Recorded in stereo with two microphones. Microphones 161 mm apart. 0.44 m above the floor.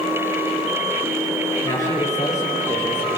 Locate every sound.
1.6 s a man speaking: 25° left (ahead or behind), 8.5 m; by 3.1 s 15° left (ahead or behind), 9 m